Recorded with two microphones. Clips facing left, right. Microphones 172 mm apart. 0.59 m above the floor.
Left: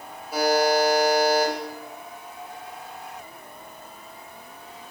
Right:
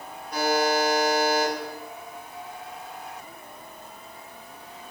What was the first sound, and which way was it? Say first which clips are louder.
A buzzer: left 3 dB; 5° left (ahead or behind).